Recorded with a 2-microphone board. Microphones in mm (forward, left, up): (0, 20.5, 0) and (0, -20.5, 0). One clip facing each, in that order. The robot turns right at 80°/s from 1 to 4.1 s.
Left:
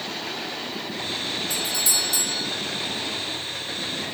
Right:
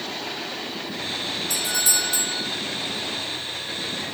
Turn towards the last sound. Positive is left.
turn(degrees=115)